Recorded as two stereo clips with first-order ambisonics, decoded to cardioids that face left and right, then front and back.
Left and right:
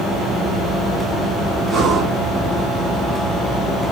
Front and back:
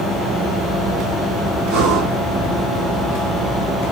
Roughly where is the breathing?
Behind right.